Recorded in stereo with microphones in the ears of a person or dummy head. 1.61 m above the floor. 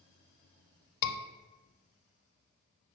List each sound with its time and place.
1.0 s a scream: 55° left (ahead or behind), 0.6 m